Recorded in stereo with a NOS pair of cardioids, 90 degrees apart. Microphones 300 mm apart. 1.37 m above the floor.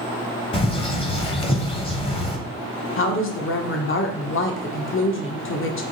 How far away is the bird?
About 1.0 m.